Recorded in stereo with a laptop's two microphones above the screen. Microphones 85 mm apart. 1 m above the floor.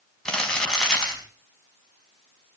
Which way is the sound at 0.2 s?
10° left (ahead or behind).